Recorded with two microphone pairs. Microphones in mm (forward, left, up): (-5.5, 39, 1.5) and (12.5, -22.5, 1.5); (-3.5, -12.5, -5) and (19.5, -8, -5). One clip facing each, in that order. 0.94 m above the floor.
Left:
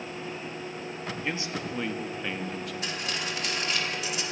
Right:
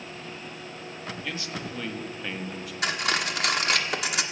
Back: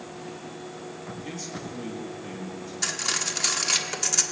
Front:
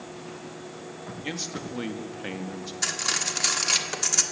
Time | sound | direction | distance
1.2 | a man speaking | 45° left | 1.7 m
2.8 | cutlery clinking | 75° right | 1.3 m